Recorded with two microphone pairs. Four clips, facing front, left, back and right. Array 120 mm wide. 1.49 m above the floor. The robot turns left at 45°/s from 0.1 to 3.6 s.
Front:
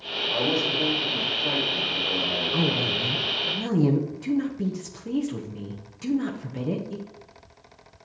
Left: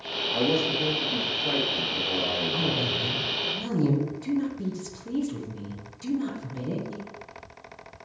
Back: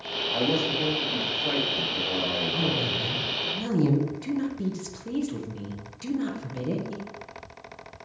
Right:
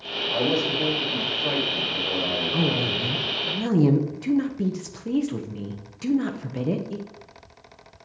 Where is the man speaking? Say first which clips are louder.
Right 1 dB, even; 40° right, 6 m; by 3.1 s 160° right, 6 m.